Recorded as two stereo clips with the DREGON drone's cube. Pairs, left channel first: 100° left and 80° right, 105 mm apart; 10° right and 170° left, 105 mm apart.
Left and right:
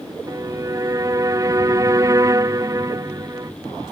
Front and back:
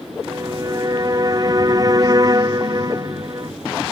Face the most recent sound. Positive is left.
turn(degrees=-140)